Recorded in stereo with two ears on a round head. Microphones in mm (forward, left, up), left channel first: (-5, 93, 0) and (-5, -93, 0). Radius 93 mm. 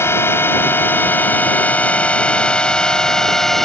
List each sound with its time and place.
0.0 s a drone: 10° left (ahead or behind); by 3.6 s centre (ahead or behind)